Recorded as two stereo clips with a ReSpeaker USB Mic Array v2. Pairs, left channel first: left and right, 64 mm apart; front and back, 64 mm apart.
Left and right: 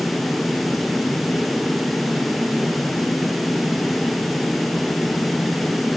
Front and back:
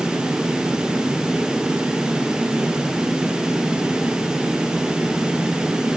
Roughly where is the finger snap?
I don't hear a finger snap.